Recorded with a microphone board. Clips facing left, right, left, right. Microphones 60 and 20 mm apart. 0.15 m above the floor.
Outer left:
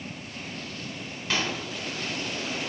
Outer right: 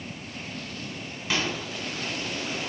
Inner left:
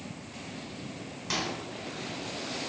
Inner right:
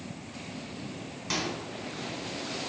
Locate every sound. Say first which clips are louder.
1.3 s a microwave: outer right 1 dB, even; 5° right (ahead or behind), 0.9 m